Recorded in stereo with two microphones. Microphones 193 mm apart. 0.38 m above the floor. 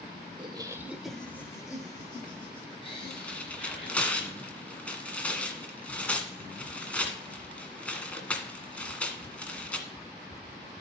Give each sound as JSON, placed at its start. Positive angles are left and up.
{"t": 0.4, "sound": "laughter", "side_deg": -30, "distance_m": 0.9}
{"t": 3.1, "sound": "tearing paper", "side_deg": 5, "distance_m": 1.7}